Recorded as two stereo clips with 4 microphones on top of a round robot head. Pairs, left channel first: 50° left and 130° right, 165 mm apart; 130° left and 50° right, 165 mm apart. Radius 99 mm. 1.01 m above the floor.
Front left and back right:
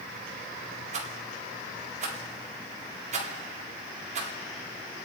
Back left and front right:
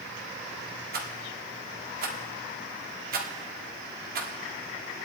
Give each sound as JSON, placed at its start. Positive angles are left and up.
{"t": 0.9, "sound": "a rattle", "azimuth_deg": -80, "distance_m": 1.9}